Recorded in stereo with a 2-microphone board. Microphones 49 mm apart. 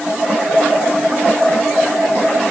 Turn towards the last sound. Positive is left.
No sound to turn to.